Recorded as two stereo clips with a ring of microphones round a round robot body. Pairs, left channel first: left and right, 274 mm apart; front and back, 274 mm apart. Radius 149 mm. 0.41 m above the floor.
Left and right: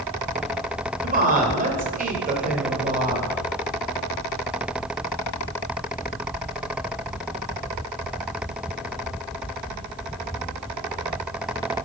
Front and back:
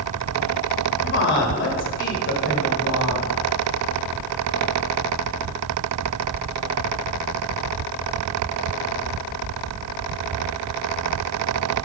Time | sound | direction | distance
1.0 | a woman speaking | 35° right | 1.9 m